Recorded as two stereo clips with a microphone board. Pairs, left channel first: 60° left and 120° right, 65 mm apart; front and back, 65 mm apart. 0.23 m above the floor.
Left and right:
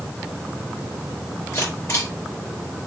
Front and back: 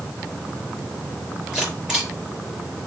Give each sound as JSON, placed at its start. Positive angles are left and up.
{"t": 1.5, "sound": "a camera shutter", "azimuth_deg": 100, "distance_m": 4.0}